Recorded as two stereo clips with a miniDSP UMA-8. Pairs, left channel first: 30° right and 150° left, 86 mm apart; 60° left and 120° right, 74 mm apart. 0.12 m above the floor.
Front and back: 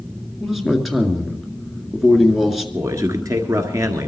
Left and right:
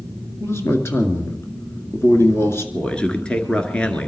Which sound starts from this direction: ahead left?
A man speaking, at 0.4 s.